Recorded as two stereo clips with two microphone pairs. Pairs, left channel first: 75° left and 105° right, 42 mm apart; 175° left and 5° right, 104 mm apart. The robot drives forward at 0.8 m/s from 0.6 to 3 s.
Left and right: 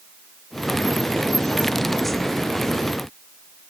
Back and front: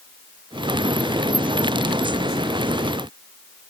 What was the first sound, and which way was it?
Only background noise.